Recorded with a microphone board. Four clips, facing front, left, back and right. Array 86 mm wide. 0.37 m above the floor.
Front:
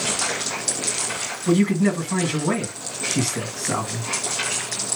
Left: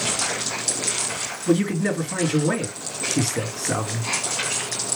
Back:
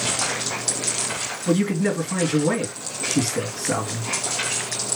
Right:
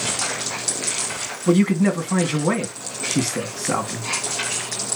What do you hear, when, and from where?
1.5 s a man speaking: 85° right, 3 m